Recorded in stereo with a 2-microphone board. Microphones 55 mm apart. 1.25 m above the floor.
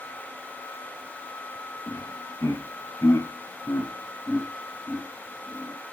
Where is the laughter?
75° left (ahead or behind), 2 m; by 5.8 s 10° left (ahead or behind), 2.5 m.